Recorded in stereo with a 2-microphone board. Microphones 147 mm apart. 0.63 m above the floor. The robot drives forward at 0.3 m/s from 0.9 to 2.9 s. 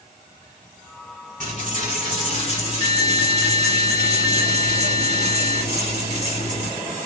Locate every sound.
1.4 s a dropped coin: 60° right (ahead or behind), 1.5 m; by 6.8 s 45° right (ahead or behind), 1.7 m